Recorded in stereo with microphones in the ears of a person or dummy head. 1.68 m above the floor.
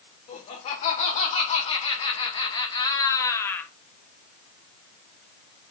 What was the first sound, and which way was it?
Laughter, 40° left (ahead or behind).